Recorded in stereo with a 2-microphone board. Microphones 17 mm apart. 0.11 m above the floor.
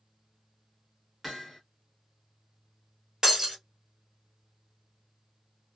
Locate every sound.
1.2 s hammering: 5° right (ahead or behind), 1.5 m
3.2 s breaking glass: 35° right (ahead or behind), 1.5 m